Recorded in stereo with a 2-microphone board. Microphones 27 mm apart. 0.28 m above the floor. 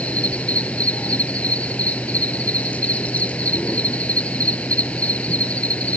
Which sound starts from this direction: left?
An insect, at 0.0 s.